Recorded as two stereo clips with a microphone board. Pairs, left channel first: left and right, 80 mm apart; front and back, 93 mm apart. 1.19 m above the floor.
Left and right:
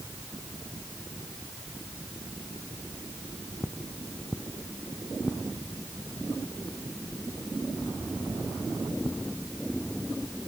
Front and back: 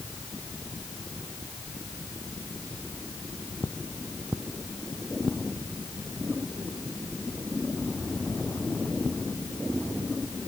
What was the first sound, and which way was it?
Only background noise.